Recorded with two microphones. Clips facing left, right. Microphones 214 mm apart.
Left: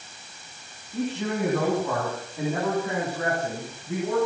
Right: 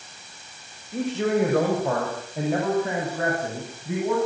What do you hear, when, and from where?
0.9 s a man speaking: 80° right, 7.5 m; by 4.2 s 75° right (ahead or behind), 11 m